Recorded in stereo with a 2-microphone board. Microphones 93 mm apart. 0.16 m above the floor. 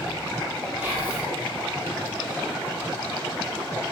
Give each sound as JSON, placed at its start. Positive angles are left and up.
{"t": 0.8, "sound": "whispering", "side_deg": -20, "distance_m": 1.4}